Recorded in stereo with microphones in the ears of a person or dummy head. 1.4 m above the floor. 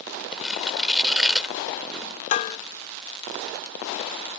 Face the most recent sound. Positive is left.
turn(degrees=30)  # may be behind; listen again after turning